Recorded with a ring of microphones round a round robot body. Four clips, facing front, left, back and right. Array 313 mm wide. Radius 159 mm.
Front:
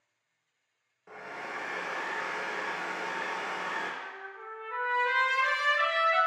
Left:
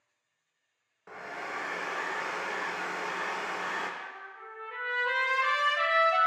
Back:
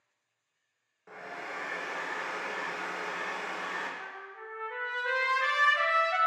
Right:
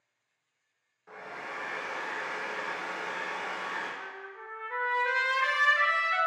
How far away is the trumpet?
About 1.8 m.